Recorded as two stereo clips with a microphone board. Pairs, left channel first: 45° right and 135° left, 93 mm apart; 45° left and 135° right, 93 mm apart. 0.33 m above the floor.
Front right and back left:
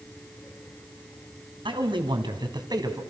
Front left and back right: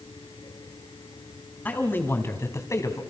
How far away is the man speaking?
About 3.5 m.